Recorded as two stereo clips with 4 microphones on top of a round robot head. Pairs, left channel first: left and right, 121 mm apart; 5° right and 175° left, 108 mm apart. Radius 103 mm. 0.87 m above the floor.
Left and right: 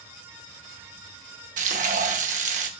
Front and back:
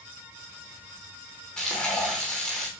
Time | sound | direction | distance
1.6 | frying | 90° right | 0.7 m